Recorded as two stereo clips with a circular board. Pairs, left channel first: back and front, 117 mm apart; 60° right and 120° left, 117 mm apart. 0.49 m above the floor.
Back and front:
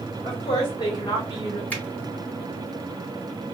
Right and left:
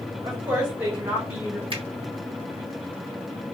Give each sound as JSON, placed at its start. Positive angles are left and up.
{"t": 0.2, "sound": "a woman speaking", "azimuth_deg": -170, "distance_m": 1.4}
{"t": 1.7, "sound": "a finger snap", "azimuth_deg": 105, "distance_m": 0.9}